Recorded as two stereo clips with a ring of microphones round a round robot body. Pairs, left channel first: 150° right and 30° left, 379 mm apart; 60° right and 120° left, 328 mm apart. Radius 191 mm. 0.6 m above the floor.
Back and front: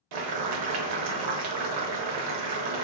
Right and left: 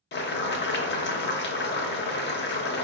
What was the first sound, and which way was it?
Boiling, straight ahead.